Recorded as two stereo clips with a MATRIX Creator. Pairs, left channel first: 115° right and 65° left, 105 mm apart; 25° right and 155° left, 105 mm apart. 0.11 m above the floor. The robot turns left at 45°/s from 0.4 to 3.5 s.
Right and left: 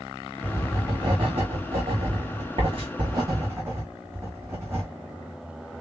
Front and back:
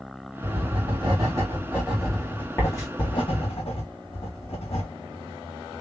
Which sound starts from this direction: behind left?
Writing, at 0.4 s.